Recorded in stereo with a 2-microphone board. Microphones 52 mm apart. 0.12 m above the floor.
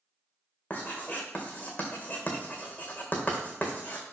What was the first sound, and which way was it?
Writing, 30° left (ahead or behind).